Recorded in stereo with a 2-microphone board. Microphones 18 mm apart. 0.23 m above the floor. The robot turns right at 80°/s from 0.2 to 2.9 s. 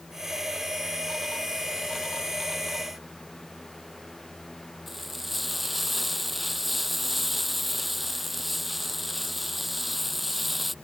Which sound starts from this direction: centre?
Frying, at 4.9 s.